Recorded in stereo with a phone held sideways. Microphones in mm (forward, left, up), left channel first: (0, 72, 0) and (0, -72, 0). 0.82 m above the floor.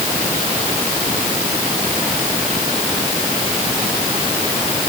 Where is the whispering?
I don't hear whispering.